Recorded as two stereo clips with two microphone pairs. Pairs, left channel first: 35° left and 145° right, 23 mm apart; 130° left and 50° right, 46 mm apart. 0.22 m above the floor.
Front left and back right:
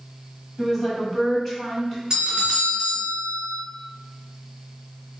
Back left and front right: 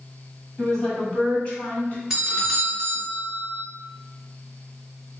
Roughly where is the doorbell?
Behind right.